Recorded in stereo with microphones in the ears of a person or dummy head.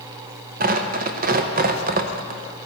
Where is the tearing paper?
50° right (ahead or behind), 0.7 m.